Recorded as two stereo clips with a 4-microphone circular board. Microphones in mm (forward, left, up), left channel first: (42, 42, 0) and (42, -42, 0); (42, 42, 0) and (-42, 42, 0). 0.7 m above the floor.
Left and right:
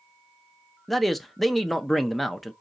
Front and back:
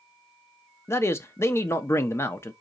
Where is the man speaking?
Straight ahead, 0.5 m.